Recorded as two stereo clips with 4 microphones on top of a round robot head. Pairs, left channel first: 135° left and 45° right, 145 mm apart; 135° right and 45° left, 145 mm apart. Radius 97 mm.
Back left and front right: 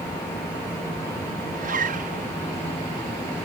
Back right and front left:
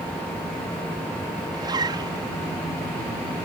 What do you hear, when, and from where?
1.5 s a zipper: 15° right